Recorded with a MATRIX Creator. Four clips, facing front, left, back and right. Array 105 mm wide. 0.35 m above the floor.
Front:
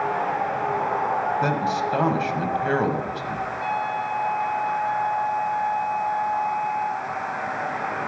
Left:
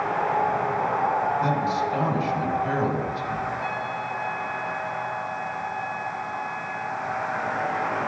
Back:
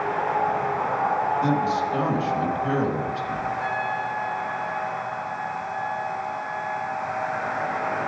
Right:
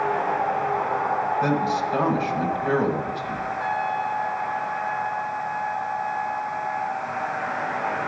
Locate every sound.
1.4 s a man speaking: 20° right, 1.8 m
3.6 s a trumpet: 10° left, 3.5 m